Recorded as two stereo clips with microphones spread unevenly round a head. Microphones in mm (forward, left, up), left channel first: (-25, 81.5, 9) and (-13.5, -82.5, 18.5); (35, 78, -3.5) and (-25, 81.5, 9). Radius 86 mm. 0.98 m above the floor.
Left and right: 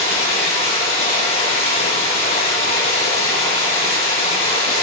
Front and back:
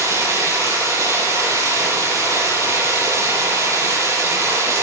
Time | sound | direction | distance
0.0 | running water | 150° left | 7 m